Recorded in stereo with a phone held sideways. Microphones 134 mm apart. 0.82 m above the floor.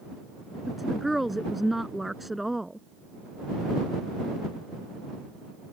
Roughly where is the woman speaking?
Centre.